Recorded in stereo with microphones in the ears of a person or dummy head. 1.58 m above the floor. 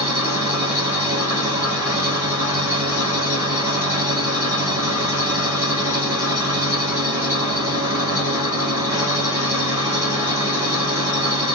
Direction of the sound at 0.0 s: 10° right (ahead or behind).